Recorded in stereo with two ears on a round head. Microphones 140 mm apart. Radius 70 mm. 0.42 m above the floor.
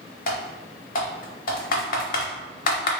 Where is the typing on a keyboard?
60° left (ahead or behind), 0.9 m.